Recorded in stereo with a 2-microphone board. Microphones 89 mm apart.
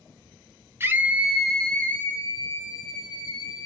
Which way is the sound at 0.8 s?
25° right (ahead or behind).